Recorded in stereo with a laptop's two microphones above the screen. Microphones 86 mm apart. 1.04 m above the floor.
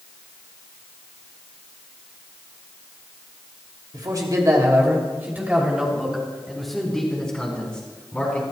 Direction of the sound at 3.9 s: 50° right (ahead or behind).